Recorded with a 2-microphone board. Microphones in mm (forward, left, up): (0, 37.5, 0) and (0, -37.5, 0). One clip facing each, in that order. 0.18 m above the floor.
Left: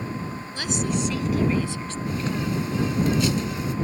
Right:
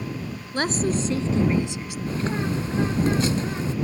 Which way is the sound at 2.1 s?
40° right (ahead or behind).